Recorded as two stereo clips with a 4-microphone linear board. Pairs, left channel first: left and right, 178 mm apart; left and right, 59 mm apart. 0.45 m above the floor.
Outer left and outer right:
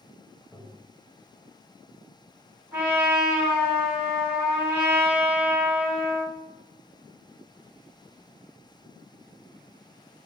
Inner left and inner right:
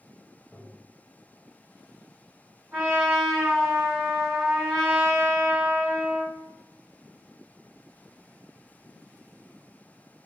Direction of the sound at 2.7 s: 10° right (ahead or behind).